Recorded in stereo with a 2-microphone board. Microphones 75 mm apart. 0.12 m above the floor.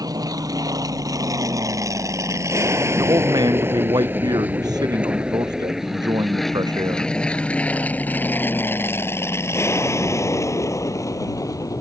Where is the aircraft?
55° right (ahead or behind); by 11.8 s 50° left (ahead or behind).